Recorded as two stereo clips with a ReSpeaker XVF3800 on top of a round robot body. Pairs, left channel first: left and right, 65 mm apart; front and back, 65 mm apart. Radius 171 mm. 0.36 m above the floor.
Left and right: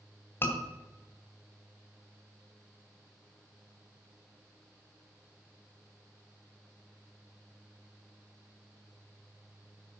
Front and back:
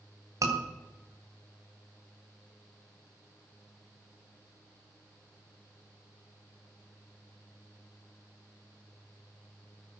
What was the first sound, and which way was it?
A scream, 145° left.